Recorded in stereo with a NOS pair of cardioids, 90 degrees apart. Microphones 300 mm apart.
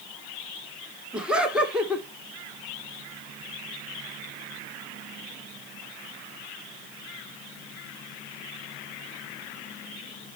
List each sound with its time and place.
1.1 s laughter: 5° right, 1.1 m